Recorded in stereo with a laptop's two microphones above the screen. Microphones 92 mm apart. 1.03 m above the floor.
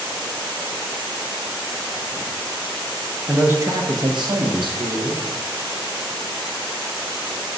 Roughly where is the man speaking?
Centre.